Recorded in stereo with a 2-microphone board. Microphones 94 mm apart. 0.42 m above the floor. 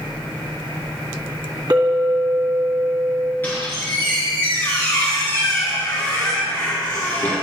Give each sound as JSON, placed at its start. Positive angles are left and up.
{"t": 1.7, "sound": "a clink", "side_deg": -50, "distance_m": 2.0}
{"t": 3.4, "sound": "a squeak", "side_deg": 25, "distance_m": 4.0}